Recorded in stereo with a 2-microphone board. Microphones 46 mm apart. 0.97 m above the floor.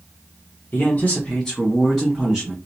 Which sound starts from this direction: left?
A man speaking, at 0.7 s.